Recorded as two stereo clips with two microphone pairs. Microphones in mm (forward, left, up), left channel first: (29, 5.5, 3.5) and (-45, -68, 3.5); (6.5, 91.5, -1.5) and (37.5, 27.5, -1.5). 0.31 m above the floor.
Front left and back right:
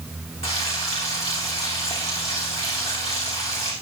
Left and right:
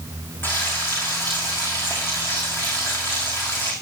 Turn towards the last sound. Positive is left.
turn(degrees=55)